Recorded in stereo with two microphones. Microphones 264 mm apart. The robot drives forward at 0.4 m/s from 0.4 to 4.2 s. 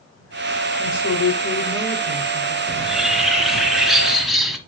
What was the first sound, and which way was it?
A woman speaking, 75° left (ahead or behind).